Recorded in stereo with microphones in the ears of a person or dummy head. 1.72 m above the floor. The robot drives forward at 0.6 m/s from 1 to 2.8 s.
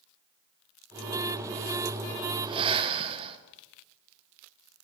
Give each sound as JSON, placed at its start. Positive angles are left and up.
{"t": 2.4, "sound": "breathing", "side_deg": -25, "distance_m": 1.8}